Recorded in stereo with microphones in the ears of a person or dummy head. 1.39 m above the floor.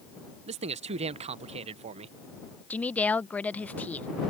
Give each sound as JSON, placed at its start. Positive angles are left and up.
{"t": 0.5, "sound": "a man speaking", "side_deg": -30}
{"t": 2.7, "sound": "a woman speaking", "side_deg": 10}